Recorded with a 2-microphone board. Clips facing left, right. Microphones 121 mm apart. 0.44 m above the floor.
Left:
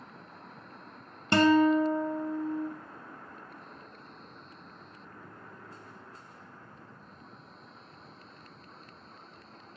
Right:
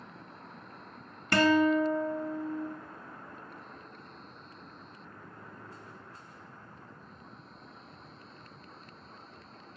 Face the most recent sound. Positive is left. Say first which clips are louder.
# left 2 dB
turn(degrees=25)  # may be behind; listen again after turning